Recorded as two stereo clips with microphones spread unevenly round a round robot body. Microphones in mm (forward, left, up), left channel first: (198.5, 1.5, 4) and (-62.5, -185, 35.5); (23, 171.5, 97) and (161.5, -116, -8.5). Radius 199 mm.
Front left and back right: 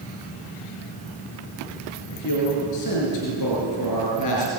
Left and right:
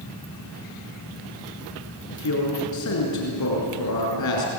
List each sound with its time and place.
2.1 s a man speaking: 80° left, 6 m